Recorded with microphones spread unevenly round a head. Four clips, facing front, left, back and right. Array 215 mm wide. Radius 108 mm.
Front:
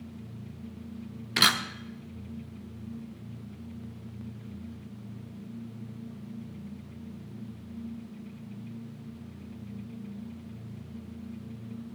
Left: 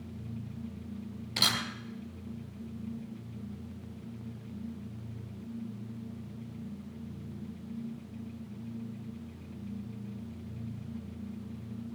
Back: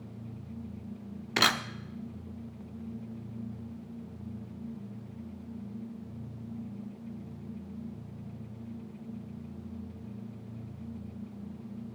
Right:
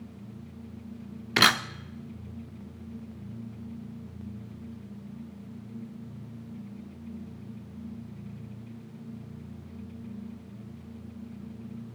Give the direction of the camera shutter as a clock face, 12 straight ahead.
3 o'clock.